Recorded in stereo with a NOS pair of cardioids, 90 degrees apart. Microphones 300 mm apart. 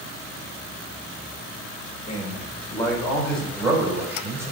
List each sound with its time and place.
2.1 s a man speaking: 25° left, 3 m; by 4.5 s 10° right, 5.5 m